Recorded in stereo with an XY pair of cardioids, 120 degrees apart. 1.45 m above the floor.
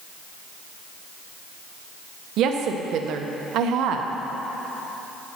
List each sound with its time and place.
2.4 s a woman speaking: 70° right, 0.8 m